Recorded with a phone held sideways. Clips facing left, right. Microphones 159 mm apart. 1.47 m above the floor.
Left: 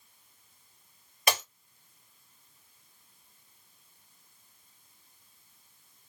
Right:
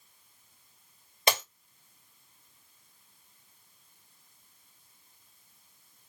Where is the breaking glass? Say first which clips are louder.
Right 1 dB; 25° right (ahead or behind), 1.9 m.